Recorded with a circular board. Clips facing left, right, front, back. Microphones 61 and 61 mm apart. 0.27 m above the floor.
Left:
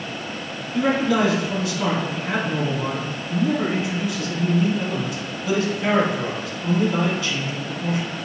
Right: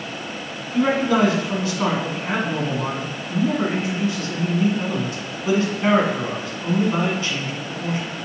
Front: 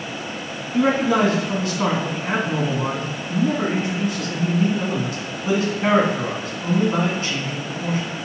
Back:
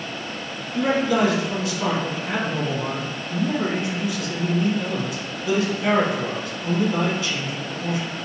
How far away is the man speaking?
About 2.5 m.